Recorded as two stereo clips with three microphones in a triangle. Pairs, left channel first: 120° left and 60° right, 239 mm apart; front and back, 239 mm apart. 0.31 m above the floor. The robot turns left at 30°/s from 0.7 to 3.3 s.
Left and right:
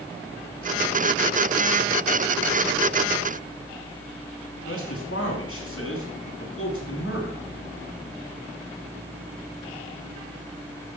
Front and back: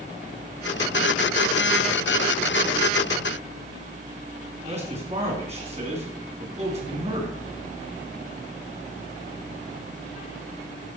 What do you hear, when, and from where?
4.7 s a man speaking: 120° left, 3 m